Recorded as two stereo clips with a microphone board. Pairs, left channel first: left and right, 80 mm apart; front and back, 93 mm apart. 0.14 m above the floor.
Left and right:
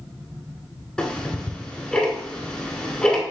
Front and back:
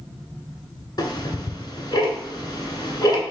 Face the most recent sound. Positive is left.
turn(degrees=15)